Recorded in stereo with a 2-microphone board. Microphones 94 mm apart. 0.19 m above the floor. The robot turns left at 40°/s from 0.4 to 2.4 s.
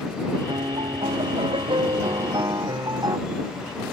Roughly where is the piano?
Ahead right.